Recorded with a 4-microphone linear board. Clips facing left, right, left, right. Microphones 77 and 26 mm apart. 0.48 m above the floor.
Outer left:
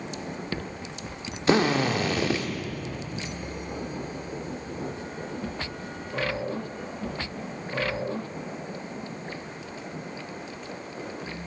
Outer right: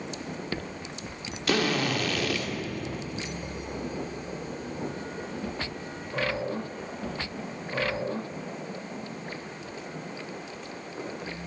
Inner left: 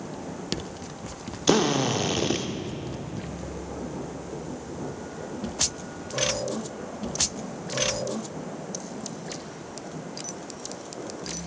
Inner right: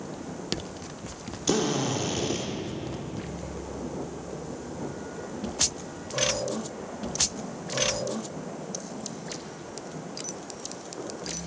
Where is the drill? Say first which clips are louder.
Outer left 4 dB, inner left 4 dB; 25° left (ahead or behind), 0.5 m.